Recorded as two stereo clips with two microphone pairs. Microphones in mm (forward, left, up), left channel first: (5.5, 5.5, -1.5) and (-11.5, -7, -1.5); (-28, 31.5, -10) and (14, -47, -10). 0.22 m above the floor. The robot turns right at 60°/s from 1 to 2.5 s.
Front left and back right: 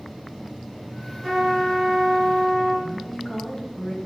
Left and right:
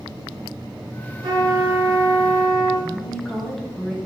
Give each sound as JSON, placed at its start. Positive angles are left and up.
{"t": 1.2, "sound": "a trumpet", "azimuth_deg": -70, "distance_m": 3.5}
{"t": 2.8, "sound": "a woman speaking", "azimuth_deg": 45, "distance_m": 1.0}